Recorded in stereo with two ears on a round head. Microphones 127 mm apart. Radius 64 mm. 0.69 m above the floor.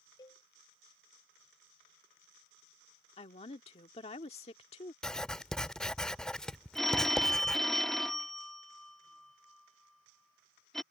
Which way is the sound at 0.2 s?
25° left (ahead or behind).